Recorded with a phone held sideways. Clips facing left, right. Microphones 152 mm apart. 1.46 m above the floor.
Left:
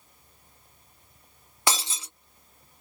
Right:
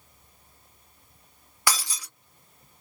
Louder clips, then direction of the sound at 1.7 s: Left 1 dB; 25° left (ahead or behind).